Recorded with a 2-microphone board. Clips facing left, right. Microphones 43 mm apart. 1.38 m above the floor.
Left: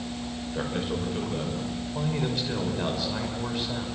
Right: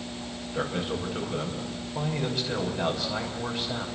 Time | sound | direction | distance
0.5 | a man speaking | centre (ahead or behind) | 6 m